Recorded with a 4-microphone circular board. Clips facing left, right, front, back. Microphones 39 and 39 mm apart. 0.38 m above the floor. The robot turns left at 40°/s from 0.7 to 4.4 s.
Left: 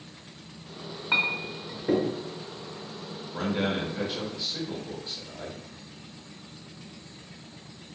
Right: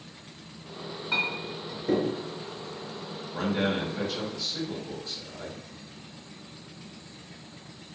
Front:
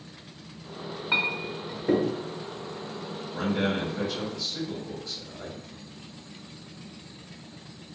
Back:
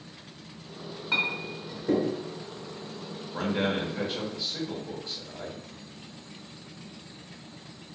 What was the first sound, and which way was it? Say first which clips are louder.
A clink: left 3 dB, front 1 dB; 60° left.